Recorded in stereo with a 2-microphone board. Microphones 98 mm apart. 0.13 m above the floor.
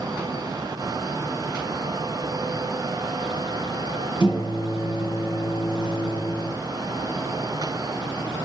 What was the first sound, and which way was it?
A microwave, 55° left (ahead or behind).